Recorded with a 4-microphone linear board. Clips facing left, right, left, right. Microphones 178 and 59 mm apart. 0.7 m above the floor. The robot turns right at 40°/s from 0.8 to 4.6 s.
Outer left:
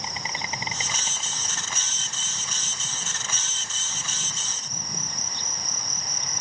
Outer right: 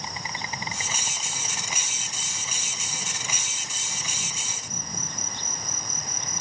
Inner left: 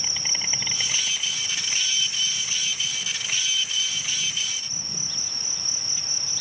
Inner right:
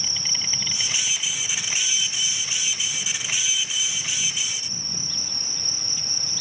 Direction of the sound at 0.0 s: 160° left.